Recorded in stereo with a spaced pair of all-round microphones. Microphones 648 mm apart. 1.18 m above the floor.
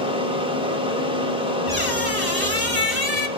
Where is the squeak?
35° left (ahead or behind), 1.8 m.